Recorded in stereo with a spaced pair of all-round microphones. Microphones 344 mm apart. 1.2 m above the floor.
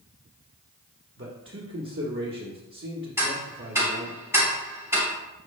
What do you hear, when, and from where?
1.2 s a man speaking: 35° right (ahead or behind), 1.0 m
3.2 s ticking: 10° right (ahead or behind), 3 m